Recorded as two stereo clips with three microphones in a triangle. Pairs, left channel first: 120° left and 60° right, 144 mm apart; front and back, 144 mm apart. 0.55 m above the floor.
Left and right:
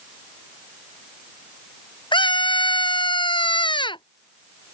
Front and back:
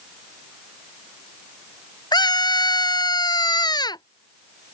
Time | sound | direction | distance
2.1 | a scream | 60° left | ?